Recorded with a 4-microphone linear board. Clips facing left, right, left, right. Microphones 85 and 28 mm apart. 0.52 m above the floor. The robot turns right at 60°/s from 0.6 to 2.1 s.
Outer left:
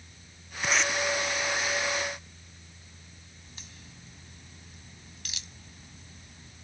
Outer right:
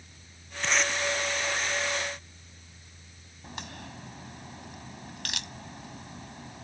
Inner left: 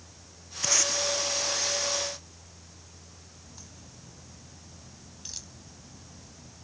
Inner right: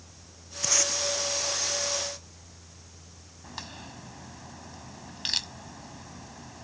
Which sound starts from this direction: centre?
Tape being pulled, at 0.6 s.